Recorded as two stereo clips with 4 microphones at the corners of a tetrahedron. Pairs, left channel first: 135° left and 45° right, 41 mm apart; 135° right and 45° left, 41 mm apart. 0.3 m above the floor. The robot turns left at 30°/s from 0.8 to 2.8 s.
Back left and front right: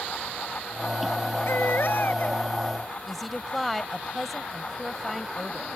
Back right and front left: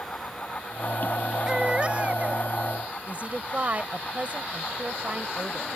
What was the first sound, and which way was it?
A baby crying, 120° left.